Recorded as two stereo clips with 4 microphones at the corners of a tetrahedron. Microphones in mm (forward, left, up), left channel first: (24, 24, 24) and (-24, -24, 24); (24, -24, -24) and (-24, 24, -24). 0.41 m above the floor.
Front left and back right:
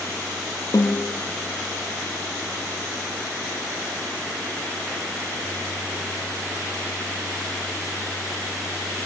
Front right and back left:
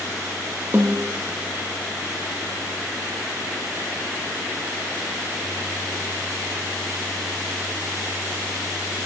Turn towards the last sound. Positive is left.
turn(degrees=75)